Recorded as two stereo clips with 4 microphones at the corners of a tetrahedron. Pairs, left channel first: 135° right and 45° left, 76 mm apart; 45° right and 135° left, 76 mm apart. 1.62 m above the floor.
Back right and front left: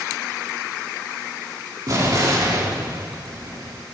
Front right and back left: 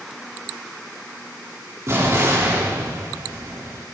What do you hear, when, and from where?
1.9 s an explosion: 85° left, 4.5 m